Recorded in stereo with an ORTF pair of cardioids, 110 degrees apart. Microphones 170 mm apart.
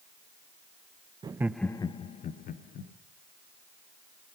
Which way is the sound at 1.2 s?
30° right.